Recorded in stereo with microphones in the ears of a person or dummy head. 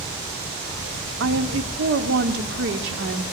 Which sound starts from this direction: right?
A woman speaking, at 1.2 s.